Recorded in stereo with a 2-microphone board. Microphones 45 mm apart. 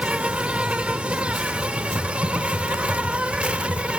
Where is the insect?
30° right (ahead or behind), 1.0 m.